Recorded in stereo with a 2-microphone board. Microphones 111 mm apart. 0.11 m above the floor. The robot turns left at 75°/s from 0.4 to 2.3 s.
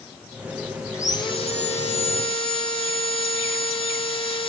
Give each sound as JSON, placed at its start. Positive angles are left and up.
{"t": 0.9, "sound": "sawing", "azimuth_deg": 155, "distance_m": 1.1}